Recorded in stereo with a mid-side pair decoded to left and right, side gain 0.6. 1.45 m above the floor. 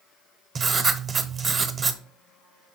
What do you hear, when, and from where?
0.6 s writing: 40° right, 0.9 m